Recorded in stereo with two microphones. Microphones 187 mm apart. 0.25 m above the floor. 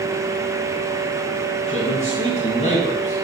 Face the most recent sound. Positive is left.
turn(degrees=45)  # may be behind; listen again after turning